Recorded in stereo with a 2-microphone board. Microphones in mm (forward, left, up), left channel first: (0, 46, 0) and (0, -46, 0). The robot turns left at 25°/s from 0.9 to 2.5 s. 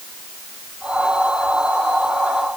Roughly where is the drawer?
No drawer in this recording.